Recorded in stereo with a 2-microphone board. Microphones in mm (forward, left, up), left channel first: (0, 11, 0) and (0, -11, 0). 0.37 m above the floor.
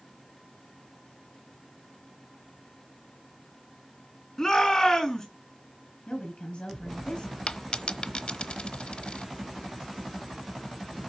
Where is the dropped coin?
65° left (ahead or behind), 0.9 m.